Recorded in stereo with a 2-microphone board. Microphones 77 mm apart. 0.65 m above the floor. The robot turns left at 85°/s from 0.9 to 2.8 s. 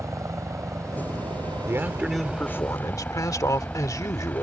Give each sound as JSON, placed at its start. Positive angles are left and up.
{"t": 0.0, "sound": "a helicopter", "side_deg": -40}
{"t": 1.7, "sound": "a man speaking", "azimuth_deg": -135}